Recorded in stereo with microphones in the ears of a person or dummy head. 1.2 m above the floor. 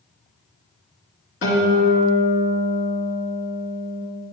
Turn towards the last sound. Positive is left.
turn(degrees=55)  # may be behind; listen again after turning